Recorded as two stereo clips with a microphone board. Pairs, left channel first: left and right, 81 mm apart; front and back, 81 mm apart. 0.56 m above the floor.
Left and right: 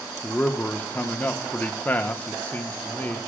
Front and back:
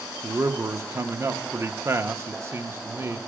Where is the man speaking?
150° left, 0.7 m.